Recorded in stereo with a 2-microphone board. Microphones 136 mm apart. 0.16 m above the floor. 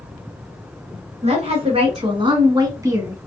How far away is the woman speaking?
About 1.7 m.